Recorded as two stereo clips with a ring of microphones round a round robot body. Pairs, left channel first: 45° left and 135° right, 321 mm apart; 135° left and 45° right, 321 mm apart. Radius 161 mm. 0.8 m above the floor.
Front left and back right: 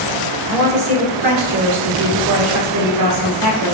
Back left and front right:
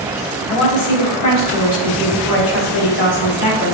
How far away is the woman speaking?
About 2.5 m.